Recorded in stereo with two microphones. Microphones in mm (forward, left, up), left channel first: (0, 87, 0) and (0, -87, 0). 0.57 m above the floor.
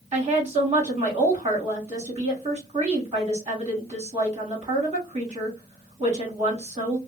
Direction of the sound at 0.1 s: 40° right (ahead or behind).